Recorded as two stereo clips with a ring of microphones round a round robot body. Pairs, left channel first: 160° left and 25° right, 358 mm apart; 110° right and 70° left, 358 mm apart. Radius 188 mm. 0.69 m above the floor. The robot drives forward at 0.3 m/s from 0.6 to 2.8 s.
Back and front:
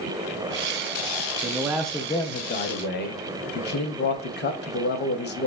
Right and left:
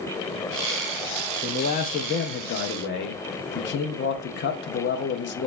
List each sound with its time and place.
1.4 s a man speaking: 75° right, 0.5 m; by 5.5 s 155° right, 0.6 m